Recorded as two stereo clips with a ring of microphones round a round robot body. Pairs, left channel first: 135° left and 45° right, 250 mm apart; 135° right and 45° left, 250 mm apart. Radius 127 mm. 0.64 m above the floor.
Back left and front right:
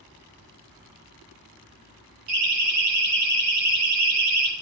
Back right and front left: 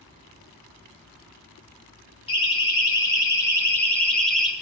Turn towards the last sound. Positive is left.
turn(degrees=-45)